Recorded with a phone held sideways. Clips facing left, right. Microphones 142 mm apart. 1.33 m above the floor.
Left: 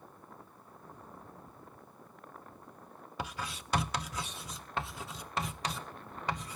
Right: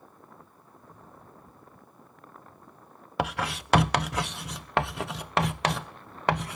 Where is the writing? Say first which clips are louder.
Right 11 dB; 70° right (ahead or behind).